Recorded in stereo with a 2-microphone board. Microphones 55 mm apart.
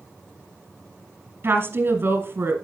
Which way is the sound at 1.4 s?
45° right (ahead or behind).